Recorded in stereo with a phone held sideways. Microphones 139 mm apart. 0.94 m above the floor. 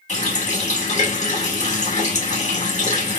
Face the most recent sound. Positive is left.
turn(degrees=55)  # may be behind; listen again after turning